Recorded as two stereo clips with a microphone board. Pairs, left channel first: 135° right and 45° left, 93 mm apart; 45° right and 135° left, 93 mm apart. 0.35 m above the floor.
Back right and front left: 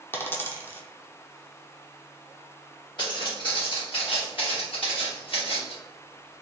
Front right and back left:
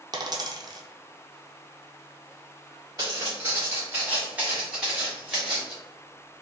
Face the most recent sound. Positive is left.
turn(degrees=-140)